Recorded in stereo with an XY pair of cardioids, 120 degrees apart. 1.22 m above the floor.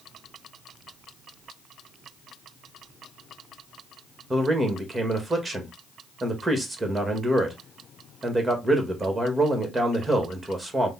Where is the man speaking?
15° right, 1.8 m.